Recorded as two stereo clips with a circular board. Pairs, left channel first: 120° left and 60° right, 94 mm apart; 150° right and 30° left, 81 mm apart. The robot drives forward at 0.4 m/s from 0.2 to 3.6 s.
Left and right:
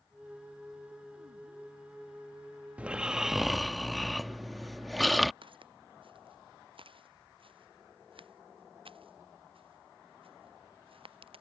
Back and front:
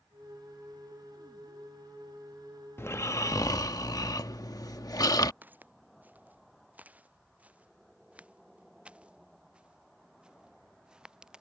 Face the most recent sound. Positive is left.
turn(degrees=-50)